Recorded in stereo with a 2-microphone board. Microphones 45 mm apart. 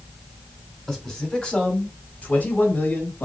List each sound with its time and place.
0.9 s a man speaking: 10° left (ahead or behind), 1.7 m; by 3.3 s 45° left (ahead or behind), 1.9 m